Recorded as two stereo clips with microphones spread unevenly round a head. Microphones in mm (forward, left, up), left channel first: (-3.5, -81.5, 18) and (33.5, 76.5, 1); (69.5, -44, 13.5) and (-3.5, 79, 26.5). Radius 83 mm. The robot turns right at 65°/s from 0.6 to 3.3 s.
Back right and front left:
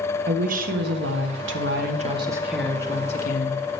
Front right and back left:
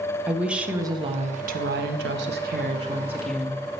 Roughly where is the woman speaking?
Ahead left.